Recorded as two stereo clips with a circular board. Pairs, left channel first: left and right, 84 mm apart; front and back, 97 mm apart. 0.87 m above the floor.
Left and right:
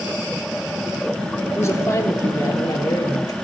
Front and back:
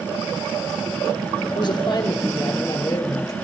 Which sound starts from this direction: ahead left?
A man speaking, at 1.6 s.